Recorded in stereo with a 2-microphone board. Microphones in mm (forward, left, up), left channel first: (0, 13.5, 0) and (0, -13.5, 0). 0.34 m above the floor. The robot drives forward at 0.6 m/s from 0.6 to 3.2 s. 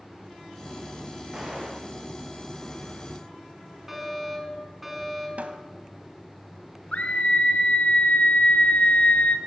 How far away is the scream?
About 4.5 m.